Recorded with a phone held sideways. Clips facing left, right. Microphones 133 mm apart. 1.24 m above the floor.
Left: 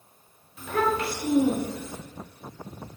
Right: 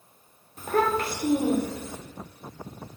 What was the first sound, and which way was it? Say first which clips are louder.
A child speaking: right 1 dB; 40° right (ahead or behind).